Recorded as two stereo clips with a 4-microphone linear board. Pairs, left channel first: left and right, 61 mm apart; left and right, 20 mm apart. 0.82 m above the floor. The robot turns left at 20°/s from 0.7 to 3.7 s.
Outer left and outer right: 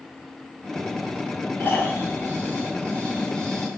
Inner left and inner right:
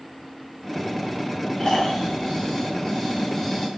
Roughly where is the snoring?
Ahead left.